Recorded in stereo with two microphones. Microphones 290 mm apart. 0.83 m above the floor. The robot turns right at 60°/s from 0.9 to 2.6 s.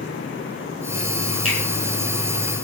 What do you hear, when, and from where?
1.4 s a finger snap: 25° right (ahead or behind), 8.5 m; by 1.6 s 35° right (ahead or behind), 8.5 m